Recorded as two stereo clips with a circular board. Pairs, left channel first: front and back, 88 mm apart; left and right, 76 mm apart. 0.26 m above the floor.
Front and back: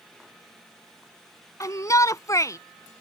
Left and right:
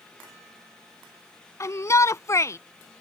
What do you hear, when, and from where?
1.6 s a shout: 45° left